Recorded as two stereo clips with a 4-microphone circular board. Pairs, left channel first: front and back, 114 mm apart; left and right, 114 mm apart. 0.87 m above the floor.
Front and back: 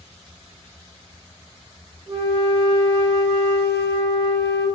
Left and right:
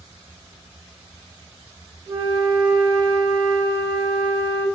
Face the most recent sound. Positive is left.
turn(degrees=-145)